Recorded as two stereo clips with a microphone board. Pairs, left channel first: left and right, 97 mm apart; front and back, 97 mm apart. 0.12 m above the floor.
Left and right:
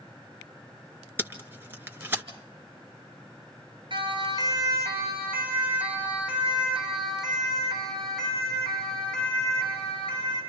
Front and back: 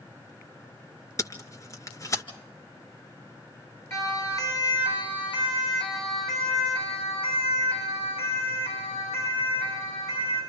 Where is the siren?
60° right, 3.5 m; by 10.4 s 10° left, 10.5 m.